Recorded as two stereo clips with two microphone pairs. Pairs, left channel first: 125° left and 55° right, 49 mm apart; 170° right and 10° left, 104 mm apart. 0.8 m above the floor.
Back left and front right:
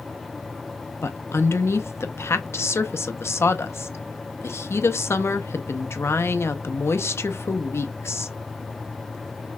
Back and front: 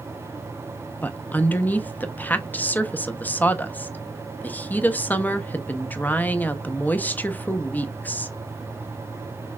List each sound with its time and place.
1.0 s a woman speaking: 120° left, 0.6 m